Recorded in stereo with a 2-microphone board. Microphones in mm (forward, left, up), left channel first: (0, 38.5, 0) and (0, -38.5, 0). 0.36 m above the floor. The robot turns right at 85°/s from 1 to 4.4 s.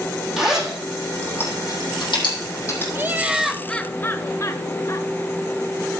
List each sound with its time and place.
0.4 s a zipper: centre (ahead or behind), 7 m; by 2.9 s 25° left (ahead or behind), 7 m
3.0 s laughter: 45° right, 1.0 m; by 5.1 s 75° left, 1.0 m